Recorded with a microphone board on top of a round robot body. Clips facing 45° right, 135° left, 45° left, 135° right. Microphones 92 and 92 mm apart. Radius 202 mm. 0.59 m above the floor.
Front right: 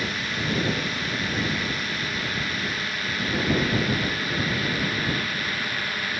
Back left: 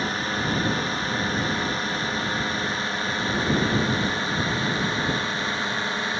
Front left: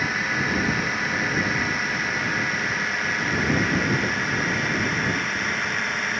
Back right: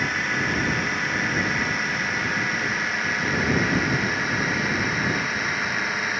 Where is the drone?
130° left; by 6.2 s 140° left.